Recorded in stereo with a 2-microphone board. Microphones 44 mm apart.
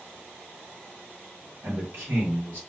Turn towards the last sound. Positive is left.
turn(degrees=-55)  # may be behind; listen again after turning